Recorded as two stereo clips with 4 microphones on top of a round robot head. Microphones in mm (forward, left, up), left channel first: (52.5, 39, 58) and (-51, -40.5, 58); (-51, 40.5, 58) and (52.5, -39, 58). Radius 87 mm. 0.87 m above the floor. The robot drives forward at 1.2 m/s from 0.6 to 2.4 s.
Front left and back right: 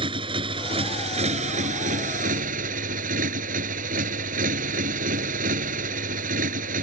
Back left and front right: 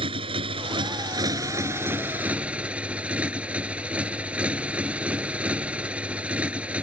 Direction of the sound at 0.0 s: 90° right.